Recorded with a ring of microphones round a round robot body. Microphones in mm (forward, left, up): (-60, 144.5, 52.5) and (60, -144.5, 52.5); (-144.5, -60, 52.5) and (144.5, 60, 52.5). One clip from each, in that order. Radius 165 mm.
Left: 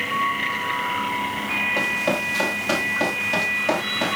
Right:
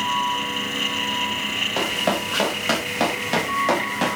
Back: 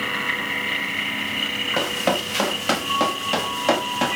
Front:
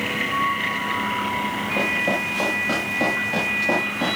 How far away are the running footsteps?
About 6 m.